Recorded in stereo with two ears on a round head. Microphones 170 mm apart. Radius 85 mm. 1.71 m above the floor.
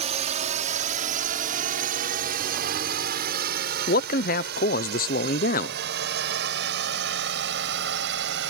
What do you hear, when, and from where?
0.0 s a drone: 35° right (ahead or behind); by 8.5 s 65° right (ahead or behind)
3.9 s a man speaking: 50° left (ahead or behind)